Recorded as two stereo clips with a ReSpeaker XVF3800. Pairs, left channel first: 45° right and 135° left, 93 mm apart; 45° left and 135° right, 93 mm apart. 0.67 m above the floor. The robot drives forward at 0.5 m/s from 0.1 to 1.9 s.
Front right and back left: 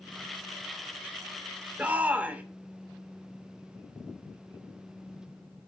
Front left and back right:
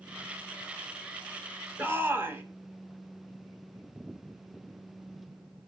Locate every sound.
1.8 s a shout: 165° right, 0.8 m; by 2.4 s 170° right, 0.8 m